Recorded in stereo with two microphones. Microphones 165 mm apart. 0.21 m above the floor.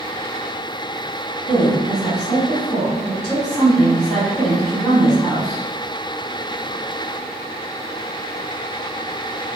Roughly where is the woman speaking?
Centre.